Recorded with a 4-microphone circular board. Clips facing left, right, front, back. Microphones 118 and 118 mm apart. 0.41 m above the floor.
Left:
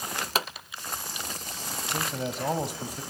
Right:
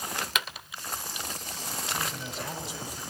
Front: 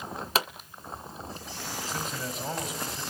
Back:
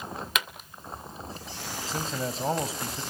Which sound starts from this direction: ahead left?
A pop, at 0.3 s.